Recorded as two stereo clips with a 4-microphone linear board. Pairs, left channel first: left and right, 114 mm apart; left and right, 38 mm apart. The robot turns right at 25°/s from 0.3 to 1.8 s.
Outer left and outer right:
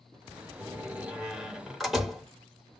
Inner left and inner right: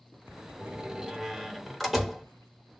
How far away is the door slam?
About 0.8 m.